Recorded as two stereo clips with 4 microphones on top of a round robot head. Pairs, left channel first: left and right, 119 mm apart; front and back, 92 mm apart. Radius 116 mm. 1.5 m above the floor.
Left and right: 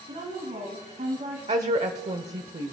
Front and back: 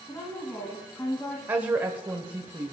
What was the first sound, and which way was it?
A woman speaking, 65° right.